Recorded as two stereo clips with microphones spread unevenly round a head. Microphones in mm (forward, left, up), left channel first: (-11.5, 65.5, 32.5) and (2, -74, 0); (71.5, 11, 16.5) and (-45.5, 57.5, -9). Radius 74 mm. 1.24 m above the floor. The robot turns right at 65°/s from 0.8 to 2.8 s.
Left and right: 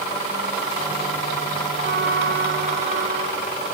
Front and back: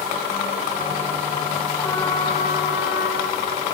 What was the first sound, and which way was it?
A trumpet, 105° right.